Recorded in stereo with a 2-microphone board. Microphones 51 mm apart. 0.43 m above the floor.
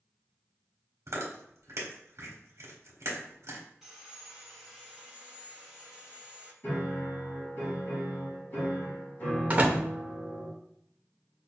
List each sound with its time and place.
1.1 s chewing: 70° right (ahead or behind), 1.2 m
3.8 s sawing: 10° right (ahead or behind), 1.2 m
6.6 s a piano: 40° left (ahead or behind), 1.8 m
9.5 s a door slam: 30° right (ahead or behind), 0.7 m